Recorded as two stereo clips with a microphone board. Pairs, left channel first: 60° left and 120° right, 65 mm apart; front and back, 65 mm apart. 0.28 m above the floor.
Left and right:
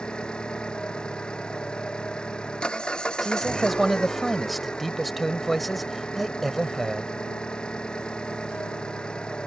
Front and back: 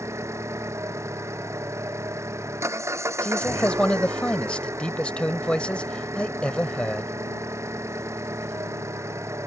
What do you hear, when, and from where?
0.0 s an engine running: 135° left
3.2 s a man speaking: 25° right